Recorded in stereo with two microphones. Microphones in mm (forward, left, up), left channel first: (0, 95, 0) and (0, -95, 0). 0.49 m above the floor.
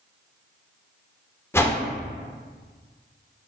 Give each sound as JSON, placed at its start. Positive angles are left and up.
{"t": 1.5, "sound": "a whoosh", "side_deg": 15, "distance_m": 0.5}